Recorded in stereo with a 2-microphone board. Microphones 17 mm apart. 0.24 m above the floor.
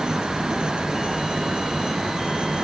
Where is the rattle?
I don't hear a rattle.